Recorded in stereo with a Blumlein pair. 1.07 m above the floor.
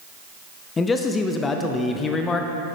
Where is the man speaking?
20° left, 0.5 m.